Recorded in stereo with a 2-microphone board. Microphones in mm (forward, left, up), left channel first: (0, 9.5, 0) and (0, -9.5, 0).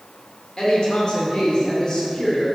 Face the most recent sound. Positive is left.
turn(degrees=40)  # may be behind; listen again after turning